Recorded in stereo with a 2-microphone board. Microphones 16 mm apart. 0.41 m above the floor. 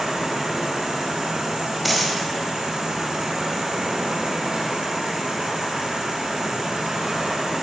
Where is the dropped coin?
5° left (ahead or behind), 1.7 m.